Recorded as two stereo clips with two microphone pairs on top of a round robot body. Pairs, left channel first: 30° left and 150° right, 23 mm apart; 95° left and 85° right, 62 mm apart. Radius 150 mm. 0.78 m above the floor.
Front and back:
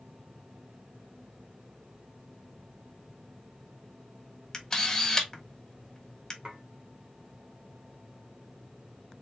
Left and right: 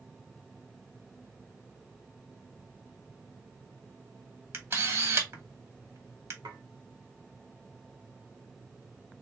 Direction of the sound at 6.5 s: 90° right.